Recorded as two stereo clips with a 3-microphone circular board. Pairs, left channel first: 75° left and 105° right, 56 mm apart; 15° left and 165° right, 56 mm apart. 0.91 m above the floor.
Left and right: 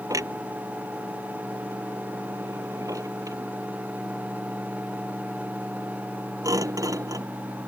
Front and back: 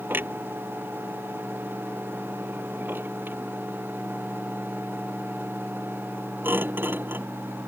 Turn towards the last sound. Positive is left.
turn(degrees=-110)